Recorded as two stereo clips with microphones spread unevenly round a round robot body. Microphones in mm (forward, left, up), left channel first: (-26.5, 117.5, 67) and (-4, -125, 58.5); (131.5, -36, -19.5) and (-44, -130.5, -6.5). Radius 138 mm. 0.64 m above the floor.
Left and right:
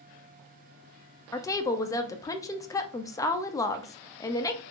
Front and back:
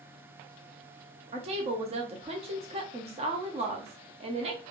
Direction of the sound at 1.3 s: 165° left.